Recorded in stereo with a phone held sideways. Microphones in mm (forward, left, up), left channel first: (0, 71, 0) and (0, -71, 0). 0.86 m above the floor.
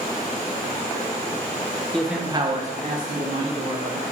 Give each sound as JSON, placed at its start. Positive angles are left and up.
{"t": 1.9, "sound": "a man speaking", "side_deg": 5, "distance_m": 0.5}